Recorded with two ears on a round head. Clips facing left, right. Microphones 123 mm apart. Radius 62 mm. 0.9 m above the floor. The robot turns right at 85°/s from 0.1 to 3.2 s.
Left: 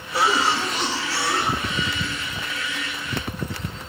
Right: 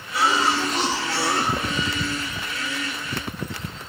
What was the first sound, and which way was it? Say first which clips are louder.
A cough: even; 150° left.